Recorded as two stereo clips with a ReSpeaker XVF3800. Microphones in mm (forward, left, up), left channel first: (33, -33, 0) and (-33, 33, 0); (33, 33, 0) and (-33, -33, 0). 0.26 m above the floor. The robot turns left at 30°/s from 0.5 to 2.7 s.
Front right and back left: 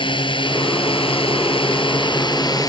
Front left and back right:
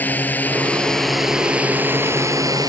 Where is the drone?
25° right; by 2.7 s 90° right.